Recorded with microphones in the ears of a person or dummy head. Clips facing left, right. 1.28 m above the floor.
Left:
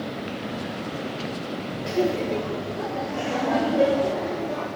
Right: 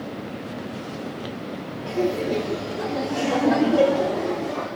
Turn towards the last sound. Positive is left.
turn(degrees=-70)  # may be behind; listen again after turning